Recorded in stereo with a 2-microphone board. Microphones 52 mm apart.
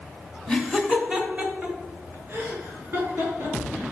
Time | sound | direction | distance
0.5 | laughter | 10° left (ahead or behind) | 1.7 m